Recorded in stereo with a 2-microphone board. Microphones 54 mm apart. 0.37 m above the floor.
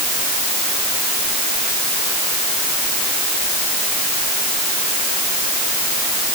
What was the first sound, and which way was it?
Only background noise.